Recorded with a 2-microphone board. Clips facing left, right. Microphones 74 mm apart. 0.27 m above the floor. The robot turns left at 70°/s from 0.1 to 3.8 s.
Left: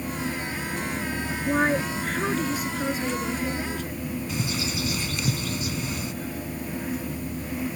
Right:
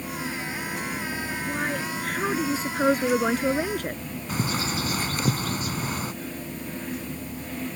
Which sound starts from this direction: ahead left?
A woman speaking, at 1.5 s.